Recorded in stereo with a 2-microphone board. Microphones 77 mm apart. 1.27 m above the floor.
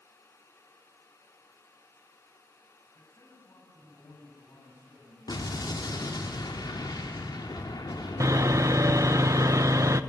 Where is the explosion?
65° left (ahead or behind), 2.5 m.